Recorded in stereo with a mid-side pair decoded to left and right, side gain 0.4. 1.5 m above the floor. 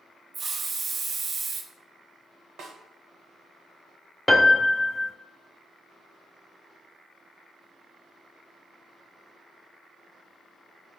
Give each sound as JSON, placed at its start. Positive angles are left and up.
{"t": 0.3, "sound": "a hiss", "azimuth_deg": -50, "distance_m": 0.6}
{"t": 2.6, "sound": "a snare drum", "azimuth_deg": -70, "distance_m": 0.8}
{"t": 4.3, "sound": "a piano", "azimuth_deg": 5, "distance_m": 0.6}